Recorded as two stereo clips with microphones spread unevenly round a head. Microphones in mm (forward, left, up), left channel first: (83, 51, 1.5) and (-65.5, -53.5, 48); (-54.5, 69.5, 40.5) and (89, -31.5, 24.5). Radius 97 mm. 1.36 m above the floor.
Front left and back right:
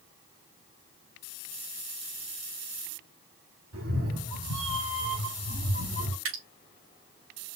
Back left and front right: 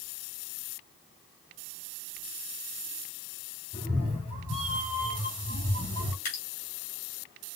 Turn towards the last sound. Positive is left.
turn(degrees=-165)